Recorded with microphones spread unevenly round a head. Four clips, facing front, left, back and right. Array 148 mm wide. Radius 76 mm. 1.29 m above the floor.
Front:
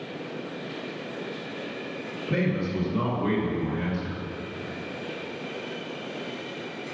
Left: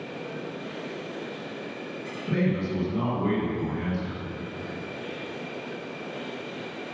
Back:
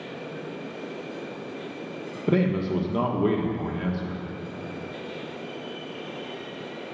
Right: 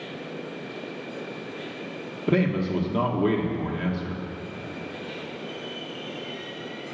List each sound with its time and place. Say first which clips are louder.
2.3 s a man speaking: right 3 dB, back 4 dB; 140° right, 1.5 m